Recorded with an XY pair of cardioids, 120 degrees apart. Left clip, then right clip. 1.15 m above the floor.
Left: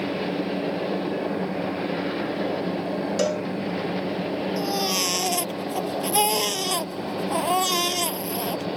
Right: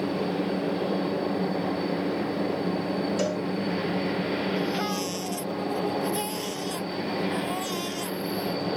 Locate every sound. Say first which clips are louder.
0.0 s a machine running: left 1 dB; 5° right
3.2 s a cowbell: left 4 dB; 35° left
4.6 s a baby crying: left 4 dB; 60° left